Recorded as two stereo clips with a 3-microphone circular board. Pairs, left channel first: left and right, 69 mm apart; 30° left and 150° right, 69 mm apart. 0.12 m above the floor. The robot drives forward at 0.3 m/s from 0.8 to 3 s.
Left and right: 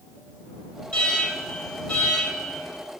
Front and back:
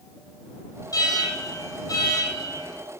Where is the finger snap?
No finger snap in this recording.